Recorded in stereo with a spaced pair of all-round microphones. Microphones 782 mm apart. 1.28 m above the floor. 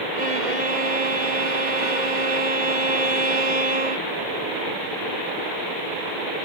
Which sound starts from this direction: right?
A violin, at 0.1 s.